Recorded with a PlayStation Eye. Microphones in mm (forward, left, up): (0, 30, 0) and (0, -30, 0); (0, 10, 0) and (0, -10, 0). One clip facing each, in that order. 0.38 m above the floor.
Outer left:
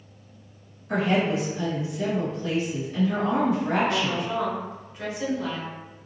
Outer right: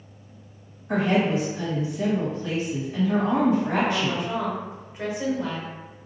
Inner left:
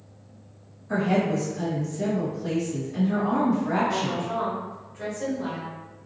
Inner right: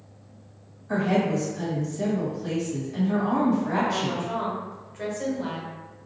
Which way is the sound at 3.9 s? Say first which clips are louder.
Even, even; 25° right (ahead or behind).